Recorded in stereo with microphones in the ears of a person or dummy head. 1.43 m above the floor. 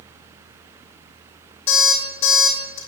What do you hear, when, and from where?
1.7 s an alarm clock: 40° left (ahead or behind), 3 m